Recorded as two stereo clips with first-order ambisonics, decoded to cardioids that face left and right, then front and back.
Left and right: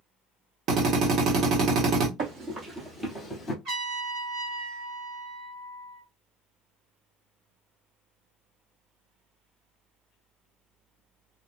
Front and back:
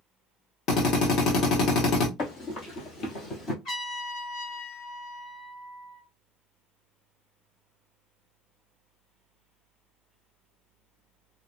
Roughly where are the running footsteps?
Ahead right.